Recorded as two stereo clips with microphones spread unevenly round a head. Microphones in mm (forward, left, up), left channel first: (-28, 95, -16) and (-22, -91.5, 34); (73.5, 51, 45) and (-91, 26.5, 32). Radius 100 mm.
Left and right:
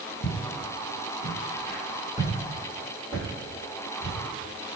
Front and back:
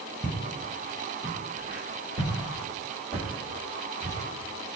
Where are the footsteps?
90° left, 1.6 m; by 4.2 s 110° right, 2.5 m.